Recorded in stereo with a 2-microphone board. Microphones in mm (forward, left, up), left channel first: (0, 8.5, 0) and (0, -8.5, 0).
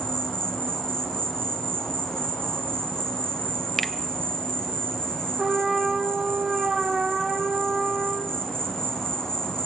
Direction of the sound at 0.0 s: 30° left (ahead or behind).